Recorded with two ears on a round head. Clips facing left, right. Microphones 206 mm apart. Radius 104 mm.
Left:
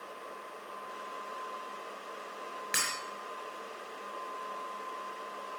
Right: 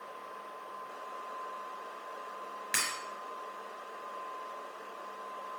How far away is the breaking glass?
About 6 m.